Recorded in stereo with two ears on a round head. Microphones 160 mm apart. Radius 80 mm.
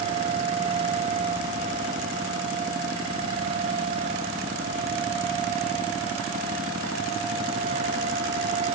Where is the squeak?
No squeak in this recording.